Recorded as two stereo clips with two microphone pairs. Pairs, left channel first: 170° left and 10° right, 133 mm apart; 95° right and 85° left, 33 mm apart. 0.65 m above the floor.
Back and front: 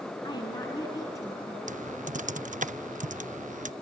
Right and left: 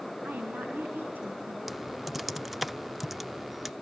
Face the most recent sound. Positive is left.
turn(degrees=0)